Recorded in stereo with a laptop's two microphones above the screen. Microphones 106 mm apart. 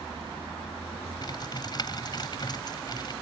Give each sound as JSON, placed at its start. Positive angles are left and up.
{"t": 1.2, "sound": "typing on a keyboard", "side_deg": 40}